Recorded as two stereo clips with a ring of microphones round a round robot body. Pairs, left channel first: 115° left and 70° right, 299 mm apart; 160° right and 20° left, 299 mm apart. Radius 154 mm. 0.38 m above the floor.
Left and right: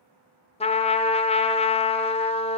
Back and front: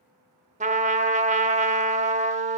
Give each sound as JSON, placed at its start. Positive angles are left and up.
{"t": 0.6, "sound": "a trumpet", "azimuth_deg": 60, "distance_m": 0.6}